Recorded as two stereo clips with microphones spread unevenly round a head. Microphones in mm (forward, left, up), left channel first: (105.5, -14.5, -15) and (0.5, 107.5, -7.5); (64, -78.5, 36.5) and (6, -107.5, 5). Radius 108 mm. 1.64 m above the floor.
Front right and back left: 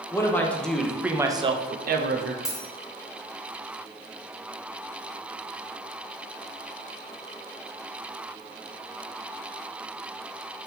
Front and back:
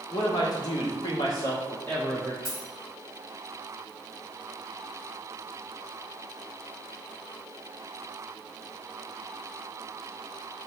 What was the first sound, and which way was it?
A man speaking, 25° left.